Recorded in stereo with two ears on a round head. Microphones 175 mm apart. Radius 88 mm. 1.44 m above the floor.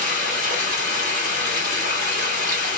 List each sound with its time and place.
0.0 s running water: 55° left (ahead or behind), 3.5 m